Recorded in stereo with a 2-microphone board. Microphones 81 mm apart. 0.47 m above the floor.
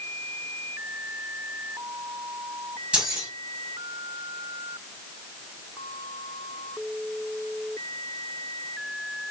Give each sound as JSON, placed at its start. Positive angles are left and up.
{"t": 2.9, "sound": "keys jangling", "side_deg": -15, "distance_m": 2.0}